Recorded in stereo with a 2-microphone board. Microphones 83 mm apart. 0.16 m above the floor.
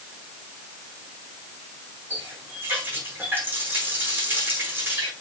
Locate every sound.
2.1 s a running tap: 30° right (ahead or behind), 6 m